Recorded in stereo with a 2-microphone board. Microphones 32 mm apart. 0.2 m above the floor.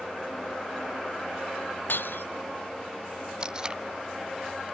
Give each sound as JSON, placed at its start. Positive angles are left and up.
{"t": 1.9, "sound": "breaking glass", "side_deg": 75}
{"t": 3.4, "sound": "tape being pulled", "side_deg": -25}